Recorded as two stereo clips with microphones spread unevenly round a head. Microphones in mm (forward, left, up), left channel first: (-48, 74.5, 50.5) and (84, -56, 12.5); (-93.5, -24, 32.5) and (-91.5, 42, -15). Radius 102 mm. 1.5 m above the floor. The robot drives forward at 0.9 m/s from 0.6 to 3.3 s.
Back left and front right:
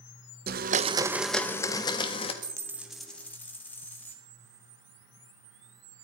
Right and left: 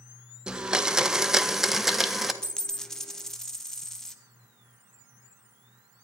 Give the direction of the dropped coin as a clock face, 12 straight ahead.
4 o'clock.